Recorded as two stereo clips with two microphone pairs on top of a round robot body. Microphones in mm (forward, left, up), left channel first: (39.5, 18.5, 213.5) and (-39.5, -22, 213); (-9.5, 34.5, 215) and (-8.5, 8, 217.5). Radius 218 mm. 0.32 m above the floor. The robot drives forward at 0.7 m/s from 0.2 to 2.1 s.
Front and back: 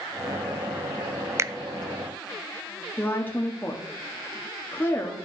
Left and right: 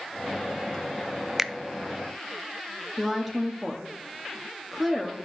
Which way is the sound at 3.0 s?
15° left.